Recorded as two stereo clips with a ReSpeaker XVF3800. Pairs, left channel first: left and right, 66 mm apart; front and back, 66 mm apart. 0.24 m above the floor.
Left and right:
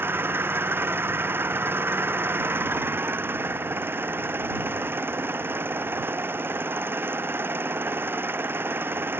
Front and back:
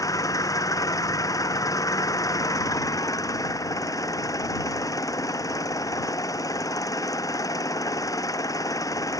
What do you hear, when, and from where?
0.0 s an engine running: 35° right